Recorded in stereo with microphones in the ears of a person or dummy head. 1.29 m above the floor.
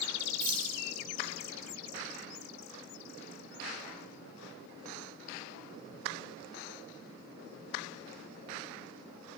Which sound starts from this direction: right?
Keys jangling, at 0.4 s.